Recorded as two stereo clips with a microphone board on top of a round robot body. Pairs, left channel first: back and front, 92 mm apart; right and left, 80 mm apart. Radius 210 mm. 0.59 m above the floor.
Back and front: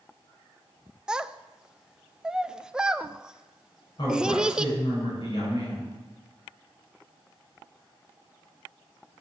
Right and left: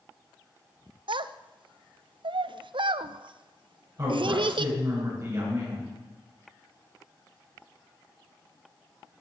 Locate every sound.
1.1 s a child speaking: 85° left, 0.6 m
4.0 s a woman speaking: 135° left, 10 m